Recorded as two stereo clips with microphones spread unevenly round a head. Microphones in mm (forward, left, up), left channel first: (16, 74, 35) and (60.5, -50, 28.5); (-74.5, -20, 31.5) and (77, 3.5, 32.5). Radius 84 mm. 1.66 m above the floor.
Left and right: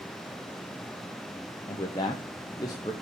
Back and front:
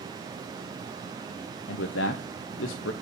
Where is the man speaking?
Straight behind, 0.8 m.